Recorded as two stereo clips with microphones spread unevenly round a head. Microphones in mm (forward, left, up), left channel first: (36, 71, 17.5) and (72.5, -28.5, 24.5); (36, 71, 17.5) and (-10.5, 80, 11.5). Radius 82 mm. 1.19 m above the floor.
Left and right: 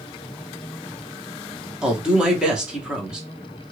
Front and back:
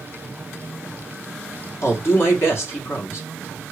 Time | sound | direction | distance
1.8 | a woman speaking | 15° left | 1.4 m